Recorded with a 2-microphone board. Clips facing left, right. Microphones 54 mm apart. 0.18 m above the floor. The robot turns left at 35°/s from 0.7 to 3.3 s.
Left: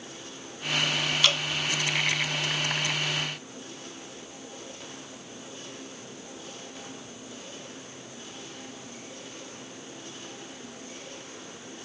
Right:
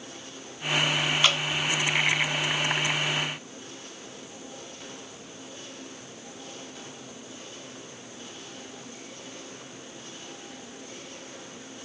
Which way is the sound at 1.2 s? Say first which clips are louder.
Right 1 dB; 25° right (ahead or behind).